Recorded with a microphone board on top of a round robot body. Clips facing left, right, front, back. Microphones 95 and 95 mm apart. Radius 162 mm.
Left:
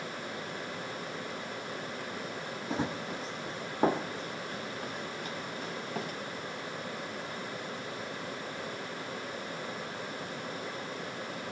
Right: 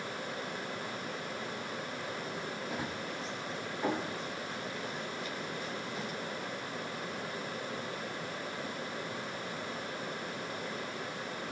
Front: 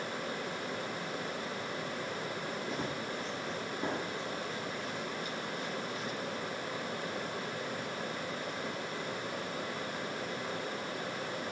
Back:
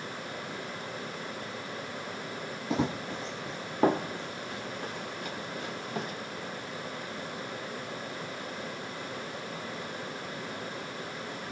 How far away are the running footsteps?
About 0.8 m.